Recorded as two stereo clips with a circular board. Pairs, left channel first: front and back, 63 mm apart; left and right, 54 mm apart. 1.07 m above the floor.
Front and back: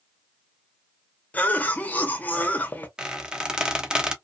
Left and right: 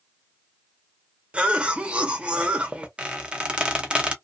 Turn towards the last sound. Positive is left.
turn(degrees=-125)